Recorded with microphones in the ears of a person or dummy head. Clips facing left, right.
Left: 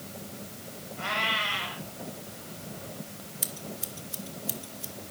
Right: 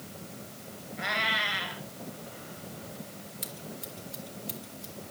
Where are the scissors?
10° left (ahead or behind), 1.6 m.